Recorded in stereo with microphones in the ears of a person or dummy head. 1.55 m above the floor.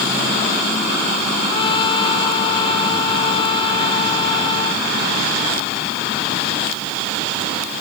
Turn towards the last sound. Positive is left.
turn(degrees=25)  # may be behind; listen again after turning